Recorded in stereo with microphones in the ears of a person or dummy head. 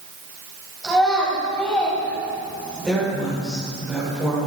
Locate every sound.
0.8 s a child speaking: 5° left (ahead or behind), 6.5 m; by 2.9 s 15° left (ahead or behind), 7.5 m
2.8 s a woman speaking: 5° right (ahead or behind), 5.5 m